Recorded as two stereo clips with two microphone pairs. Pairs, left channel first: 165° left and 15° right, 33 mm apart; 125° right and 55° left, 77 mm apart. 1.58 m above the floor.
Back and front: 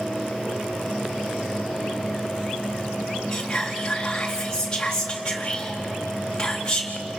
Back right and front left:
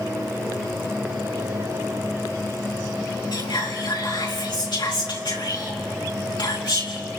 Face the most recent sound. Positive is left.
turn(degrees=-125)